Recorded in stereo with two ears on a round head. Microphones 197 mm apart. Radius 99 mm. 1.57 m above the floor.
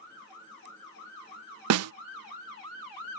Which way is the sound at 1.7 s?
80° right.